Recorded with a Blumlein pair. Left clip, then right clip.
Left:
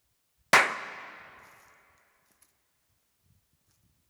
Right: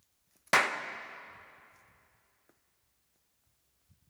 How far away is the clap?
About 0.7 m.